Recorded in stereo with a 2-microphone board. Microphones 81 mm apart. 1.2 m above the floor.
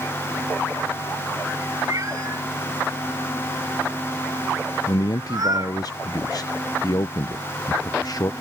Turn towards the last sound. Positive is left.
turn(degrees=50)  # may be behind; listen again after turning